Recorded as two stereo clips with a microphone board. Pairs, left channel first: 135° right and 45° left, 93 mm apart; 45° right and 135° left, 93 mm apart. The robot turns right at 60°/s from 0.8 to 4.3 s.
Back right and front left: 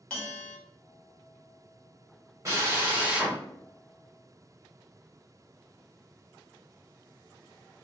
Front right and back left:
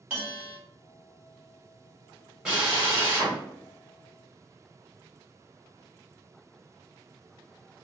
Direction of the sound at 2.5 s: 60° left.